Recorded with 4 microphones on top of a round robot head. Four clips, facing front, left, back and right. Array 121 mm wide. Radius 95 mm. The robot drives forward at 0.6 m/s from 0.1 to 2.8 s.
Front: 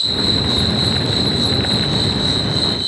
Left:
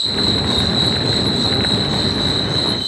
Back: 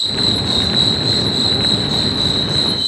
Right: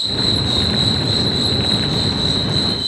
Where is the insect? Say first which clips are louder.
Left 2 dB, front 1 dB; 160° left, 0.7 m; by 2.9 s 175° left, 2 m.